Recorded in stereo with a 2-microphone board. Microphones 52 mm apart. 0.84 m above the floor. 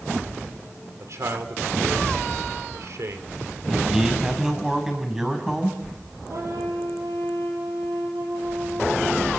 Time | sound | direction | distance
1.0 | a man speaking | 65° right (ahead or behind) | 2.5 m
3.7 | a man speaking | 5° right (ahead or behind) | 5.5 m
6.3 | a trumpet | 80° right | 4.5 m